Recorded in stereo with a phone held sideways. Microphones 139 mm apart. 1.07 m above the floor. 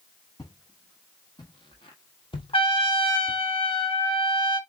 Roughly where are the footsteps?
Left.